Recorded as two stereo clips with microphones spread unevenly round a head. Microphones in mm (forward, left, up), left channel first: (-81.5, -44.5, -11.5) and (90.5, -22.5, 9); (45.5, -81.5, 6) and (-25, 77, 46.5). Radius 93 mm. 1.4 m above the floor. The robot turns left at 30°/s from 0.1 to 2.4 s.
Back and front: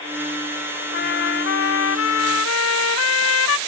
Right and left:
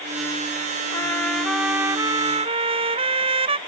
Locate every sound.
0.9 s a trumpet: 140° right; by 3.6 s 175° left